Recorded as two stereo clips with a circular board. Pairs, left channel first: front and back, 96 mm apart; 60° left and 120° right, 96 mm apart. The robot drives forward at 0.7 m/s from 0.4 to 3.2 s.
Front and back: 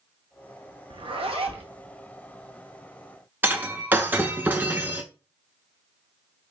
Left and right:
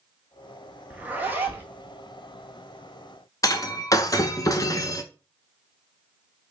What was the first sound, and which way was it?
A zipper, 165° left.